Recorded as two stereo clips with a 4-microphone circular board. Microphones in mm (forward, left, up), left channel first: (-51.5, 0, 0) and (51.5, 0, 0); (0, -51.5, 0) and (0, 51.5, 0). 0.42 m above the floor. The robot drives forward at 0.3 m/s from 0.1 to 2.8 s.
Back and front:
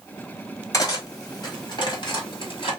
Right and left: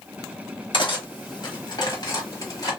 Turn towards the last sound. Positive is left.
turn(degrees=-145)